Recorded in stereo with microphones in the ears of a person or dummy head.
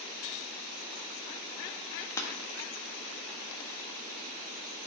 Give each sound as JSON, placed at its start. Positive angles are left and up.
{"t": 2.2, "sound": "breaking glass", "side_deg": 20, "distance_m": 1.4}